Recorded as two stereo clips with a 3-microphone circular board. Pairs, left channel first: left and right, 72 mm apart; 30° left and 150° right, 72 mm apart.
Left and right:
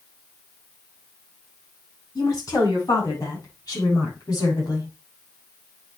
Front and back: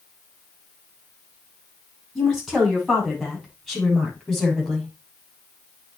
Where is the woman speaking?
120° left, 7.5 m; by 4.9 s 115° left, 6 m.